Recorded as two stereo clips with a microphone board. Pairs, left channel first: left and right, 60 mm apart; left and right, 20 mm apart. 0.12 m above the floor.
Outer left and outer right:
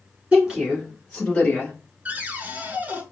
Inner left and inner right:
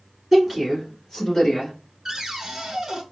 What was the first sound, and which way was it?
A woman speaking, 20° right (ahead or behind).